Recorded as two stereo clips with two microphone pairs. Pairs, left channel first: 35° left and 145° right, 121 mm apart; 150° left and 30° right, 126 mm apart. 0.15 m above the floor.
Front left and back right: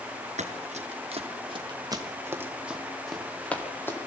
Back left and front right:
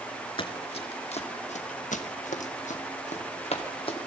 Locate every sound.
0.4 s running footsteps: 165° right, 3.5 m; by 4.0 s 105° left, 4 m